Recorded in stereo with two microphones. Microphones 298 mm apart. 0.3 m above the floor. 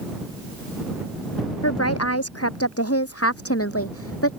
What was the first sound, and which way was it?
A woman speaking, 55° left (ahead or behind).